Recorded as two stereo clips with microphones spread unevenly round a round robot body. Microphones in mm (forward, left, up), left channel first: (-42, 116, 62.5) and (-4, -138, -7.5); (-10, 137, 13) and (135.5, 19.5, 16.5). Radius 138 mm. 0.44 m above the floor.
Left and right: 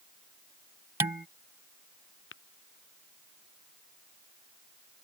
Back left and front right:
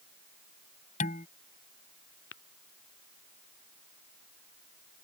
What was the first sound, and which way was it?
Dishes clattering, 160° right.